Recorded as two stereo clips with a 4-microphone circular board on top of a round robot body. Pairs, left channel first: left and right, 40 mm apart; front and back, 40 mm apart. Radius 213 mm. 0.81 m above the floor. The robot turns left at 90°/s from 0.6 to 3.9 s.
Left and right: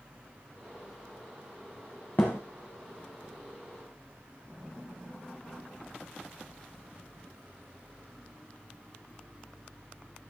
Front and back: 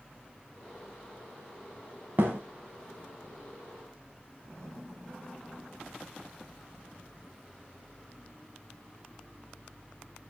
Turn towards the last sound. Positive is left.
turn(degrees=-15)